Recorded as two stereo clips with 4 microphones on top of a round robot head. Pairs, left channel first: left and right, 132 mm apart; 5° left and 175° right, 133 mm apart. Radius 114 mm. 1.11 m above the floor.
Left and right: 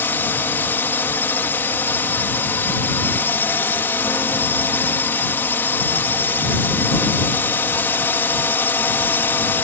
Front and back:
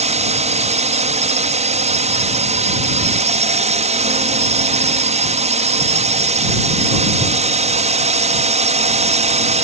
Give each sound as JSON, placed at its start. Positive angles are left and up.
{"t": 0.0, "sound": "a drone", "azimuth_deg": 165}